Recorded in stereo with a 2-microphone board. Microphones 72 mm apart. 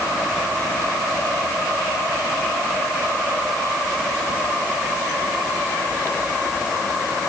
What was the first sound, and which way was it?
Only background noise.